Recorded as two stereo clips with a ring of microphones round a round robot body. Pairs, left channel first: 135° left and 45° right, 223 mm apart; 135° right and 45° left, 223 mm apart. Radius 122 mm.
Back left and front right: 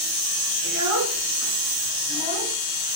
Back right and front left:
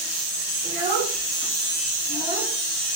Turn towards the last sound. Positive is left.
turn(degrees=-10)